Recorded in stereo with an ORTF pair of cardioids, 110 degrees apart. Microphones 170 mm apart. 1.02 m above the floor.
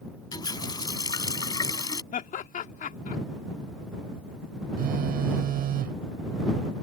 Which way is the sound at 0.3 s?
25° left.